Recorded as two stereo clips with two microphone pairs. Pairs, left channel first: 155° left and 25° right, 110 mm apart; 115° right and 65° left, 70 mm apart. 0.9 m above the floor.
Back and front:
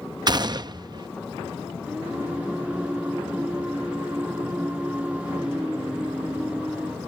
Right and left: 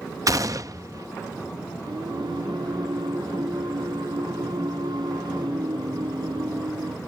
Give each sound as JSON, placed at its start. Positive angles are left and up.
{"t": 0.3, "sound": "a gunshot", "azimuth_deg": 25}
{"t": 1.9, "sound": "singing", "azimuth_deg": 55}